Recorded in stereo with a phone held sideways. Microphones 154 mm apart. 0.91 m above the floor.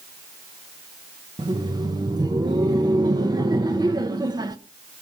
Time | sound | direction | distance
1.4 | laughter | 25° right (ahead or behind) | 0.8 m